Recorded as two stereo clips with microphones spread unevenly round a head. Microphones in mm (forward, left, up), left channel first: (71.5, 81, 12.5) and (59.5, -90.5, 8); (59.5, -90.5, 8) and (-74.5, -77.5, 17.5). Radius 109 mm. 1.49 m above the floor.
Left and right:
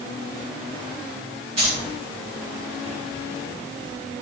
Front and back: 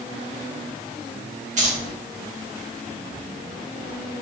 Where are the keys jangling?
160° right, 2 m.